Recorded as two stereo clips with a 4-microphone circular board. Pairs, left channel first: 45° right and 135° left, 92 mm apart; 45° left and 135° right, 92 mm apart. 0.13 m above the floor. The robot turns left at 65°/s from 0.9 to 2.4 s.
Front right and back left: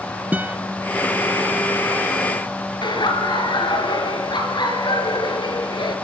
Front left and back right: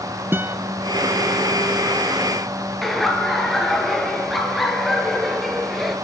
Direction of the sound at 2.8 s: 45° right.